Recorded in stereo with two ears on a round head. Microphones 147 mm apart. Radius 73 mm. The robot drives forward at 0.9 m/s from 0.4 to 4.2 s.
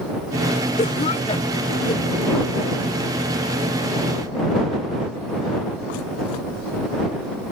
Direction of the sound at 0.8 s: 45° left (ahead or behind).